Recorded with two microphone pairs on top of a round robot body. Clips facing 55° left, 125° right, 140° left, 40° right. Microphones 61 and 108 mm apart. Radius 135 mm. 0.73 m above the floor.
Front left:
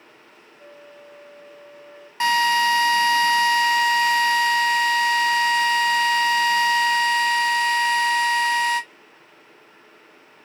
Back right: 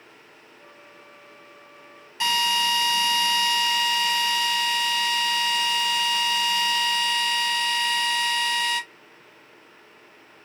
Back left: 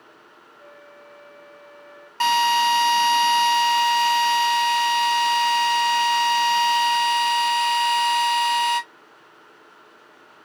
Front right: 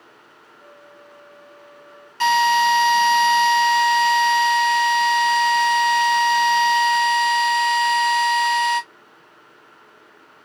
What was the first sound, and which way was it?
A flute, 60° left.